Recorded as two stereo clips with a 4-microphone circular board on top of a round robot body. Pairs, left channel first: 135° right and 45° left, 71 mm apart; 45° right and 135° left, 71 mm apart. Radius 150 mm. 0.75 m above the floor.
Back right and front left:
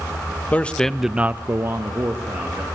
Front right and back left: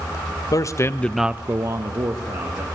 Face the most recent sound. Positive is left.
turn(degrees=100)